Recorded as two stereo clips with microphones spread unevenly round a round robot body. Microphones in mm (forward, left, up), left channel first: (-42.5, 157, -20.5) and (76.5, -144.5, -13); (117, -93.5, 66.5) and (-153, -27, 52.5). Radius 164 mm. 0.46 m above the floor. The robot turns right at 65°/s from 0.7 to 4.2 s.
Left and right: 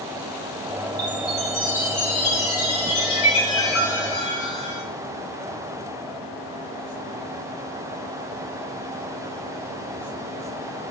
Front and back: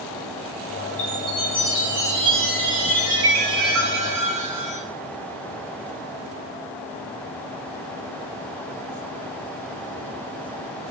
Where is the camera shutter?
I don't hear a camera shutter.